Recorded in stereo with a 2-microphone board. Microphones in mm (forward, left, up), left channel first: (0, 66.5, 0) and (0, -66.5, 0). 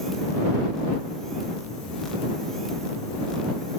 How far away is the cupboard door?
No cupboard door in this recording.